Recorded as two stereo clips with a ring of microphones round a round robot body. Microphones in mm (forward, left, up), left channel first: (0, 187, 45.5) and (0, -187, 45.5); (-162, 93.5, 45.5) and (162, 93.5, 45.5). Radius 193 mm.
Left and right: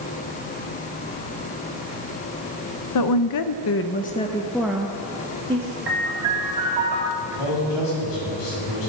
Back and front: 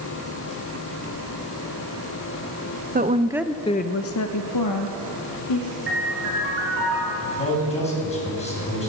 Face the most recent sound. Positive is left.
turn(degrees=110)